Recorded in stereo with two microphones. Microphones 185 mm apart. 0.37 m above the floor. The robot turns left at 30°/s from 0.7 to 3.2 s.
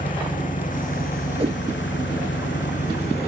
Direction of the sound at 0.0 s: 135° left.